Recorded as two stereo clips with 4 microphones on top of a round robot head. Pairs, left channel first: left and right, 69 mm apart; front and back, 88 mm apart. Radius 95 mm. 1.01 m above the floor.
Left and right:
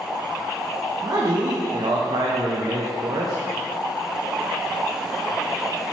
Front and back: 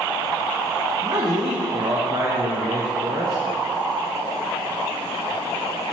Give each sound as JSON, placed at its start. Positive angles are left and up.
{"t": 1.0, "sound": "a man speaking", "azimuth_deg": -125, "distance_m": 0.6}